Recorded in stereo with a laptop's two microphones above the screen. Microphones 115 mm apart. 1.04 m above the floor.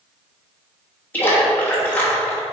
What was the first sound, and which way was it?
A splash, 15° left (ahead or behind).